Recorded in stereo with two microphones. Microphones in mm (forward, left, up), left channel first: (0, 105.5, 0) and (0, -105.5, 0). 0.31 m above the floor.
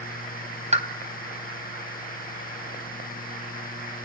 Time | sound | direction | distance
0.7 | a pop | 35° right (ahead or behind) | 2.5 m